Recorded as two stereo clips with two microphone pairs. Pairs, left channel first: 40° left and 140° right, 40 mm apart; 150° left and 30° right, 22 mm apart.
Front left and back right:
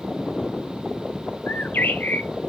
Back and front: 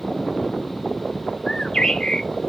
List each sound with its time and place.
1.5 s a bird: 80° left, 0.5 m